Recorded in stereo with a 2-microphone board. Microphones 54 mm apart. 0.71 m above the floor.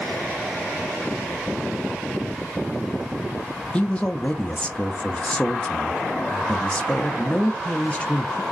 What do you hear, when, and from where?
3.7 s a man speaking: 20° left (ahead or behind), 0.7 m